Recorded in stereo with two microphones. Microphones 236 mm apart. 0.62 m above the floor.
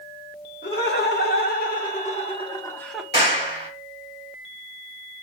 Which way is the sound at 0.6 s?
45° left (ahead or behind).